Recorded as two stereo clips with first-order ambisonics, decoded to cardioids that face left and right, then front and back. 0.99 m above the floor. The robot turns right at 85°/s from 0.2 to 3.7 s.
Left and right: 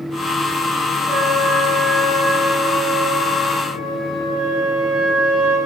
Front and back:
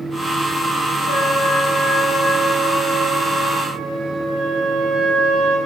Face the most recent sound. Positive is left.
turn(degrees=-135)